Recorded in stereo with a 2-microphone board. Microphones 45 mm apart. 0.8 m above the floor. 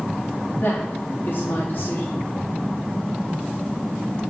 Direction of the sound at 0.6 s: 55° left (ahead or behind).